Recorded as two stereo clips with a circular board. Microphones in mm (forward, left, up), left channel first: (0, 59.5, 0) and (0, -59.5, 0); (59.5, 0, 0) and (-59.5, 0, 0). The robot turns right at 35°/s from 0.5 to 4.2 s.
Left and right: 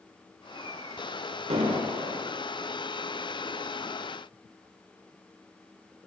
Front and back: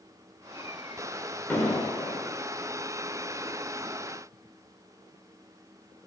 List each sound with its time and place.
1.5 s an explosion: 70° right, 1.0 m; by 2.2 s 45° right, 1.0 m